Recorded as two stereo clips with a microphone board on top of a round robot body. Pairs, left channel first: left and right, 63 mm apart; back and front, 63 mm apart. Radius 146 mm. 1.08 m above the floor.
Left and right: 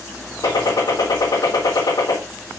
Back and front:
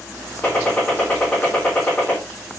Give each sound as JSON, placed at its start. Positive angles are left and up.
{"t": 0.4, "sound": "a gunshot", "azimuth_deg": 110, "distance_m": 3.5}